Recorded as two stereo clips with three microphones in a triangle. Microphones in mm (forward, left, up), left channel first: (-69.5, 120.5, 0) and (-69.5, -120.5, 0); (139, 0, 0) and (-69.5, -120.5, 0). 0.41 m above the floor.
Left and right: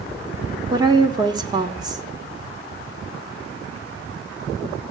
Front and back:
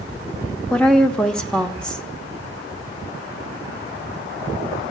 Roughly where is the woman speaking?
Ahead right.